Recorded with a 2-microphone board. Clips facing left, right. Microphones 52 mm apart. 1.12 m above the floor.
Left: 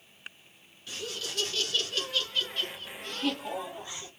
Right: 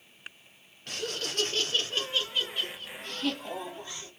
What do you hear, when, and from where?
0.9 s laughter: 55° right (ahead or behind), 1.0 m; by 4.1 s 15° left (ahead or behind), 1.6 m